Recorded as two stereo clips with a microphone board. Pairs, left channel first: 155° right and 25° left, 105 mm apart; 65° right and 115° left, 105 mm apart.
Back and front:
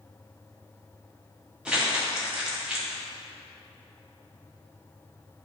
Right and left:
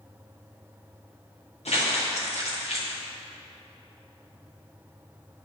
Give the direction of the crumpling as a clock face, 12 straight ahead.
2 o'clock.